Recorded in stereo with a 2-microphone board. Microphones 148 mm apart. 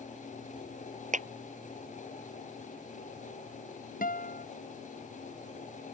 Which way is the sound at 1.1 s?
55° right (ahead or behind).